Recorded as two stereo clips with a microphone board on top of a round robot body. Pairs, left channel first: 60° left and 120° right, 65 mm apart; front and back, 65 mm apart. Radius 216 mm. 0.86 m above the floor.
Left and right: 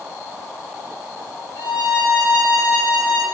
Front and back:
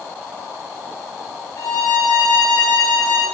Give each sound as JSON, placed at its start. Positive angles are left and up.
{"t": 1.6, "sound": "a violin", "azimuth_deg": 40, "distance_m": 0.5}